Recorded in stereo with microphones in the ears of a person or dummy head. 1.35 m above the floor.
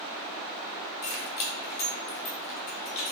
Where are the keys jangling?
65° left (ahead or behind), 1.1 m.